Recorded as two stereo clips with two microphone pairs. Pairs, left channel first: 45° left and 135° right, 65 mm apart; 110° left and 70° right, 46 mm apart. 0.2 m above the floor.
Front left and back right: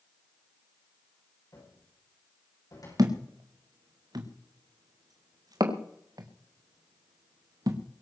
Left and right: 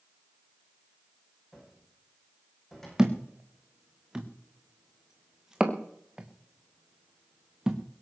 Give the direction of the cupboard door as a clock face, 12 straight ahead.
11 o'clock.